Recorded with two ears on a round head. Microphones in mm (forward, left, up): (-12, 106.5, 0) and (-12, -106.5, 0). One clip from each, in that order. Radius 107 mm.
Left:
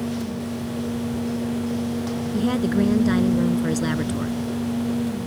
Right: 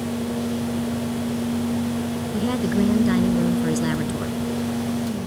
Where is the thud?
No thud in this recording.